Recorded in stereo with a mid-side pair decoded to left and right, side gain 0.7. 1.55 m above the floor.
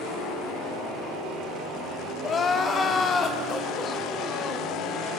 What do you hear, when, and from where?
2.2 s crying: 35° left, 2.5 m